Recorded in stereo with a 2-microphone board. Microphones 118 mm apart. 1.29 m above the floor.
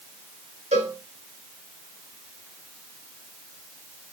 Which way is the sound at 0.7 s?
70° right (ahead or behind).